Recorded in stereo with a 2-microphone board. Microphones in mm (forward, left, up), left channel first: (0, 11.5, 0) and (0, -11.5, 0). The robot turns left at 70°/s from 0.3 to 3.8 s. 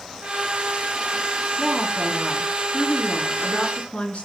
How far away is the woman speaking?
About 4.5 m.